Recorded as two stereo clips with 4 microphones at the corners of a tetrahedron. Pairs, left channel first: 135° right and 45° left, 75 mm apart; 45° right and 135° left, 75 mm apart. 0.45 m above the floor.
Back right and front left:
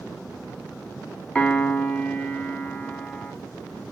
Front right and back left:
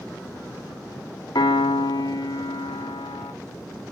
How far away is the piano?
About 0.9 m.